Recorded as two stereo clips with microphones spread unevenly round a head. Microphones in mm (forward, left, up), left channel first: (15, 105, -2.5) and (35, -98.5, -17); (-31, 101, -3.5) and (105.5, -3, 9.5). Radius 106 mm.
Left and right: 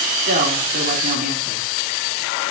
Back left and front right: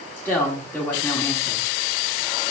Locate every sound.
0.2 s a woman speaking: 140° right, 2.5 m